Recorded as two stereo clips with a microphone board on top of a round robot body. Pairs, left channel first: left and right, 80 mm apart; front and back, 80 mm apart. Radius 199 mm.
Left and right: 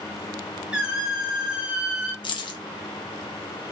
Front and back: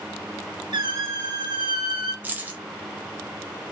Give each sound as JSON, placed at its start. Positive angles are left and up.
{"t": 0.7, "sound": "a squeak", "azimuth_deg": -170, "distance_m": 1.2}
{"t": 2.2, "sound": "keys jangling", "azimuth_deg": 110, "distance_m": 0.5}